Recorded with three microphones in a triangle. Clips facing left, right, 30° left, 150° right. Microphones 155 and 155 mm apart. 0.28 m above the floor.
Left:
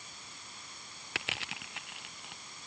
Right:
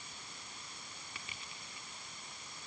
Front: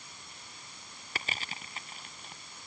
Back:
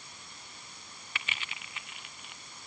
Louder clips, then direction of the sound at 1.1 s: Left 14 dB, front 3 dB; 80° left.